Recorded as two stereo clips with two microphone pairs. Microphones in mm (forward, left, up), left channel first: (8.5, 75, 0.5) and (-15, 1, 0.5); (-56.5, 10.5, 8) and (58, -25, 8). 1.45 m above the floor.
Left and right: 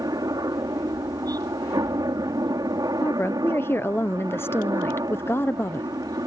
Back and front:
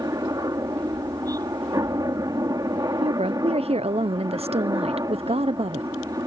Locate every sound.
0.0 s a helicopter: 75° right
3.0 s a woman speaking: 15° left